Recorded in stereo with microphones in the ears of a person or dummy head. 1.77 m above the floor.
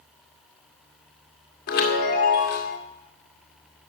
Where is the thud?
I don't hear a thud.